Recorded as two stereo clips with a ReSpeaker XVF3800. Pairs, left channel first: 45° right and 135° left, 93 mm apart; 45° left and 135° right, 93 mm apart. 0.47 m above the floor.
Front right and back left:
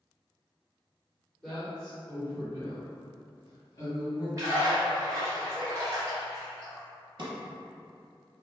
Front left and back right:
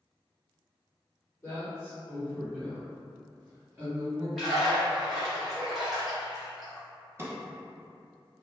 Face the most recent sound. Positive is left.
turn(degrees=160)